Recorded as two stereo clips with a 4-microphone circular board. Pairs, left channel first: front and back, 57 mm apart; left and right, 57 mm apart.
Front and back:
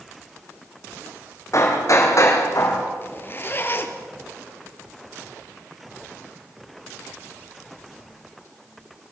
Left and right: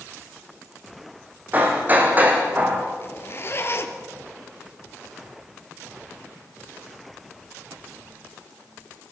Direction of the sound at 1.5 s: 30° right.